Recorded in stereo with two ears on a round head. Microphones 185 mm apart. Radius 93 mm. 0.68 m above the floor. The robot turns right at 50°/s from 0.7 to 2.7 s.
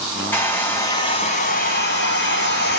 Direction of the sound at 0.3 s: 10° left.